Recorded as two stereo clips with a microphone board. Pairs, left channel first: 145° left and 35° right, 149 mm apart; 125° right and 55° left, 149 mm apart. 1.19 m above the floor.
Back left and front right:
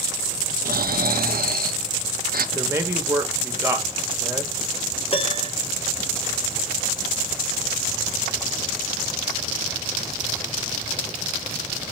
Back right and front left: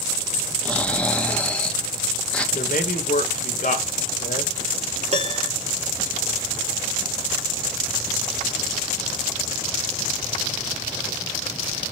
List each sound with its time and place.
0.7 s snoring: 40° right, 0.7 m
2.5 s a man speaking: 105° right, 1.3 m
5.1 s a piano: 100° left, 0.9 m